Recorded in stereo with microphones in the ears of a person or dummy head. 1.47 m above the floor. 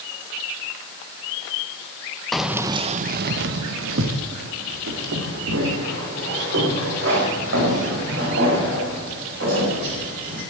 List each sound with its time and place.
2.3 s keys jangling: 5° left (ahead or behind), 1.2 m; by 10.4 s 70° right (ahead or behind), 10.5 m